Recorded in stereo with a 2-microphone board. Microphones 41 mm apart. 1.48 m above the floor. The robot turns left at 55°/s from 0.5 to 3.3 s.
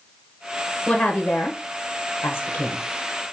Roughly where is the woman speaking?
Left.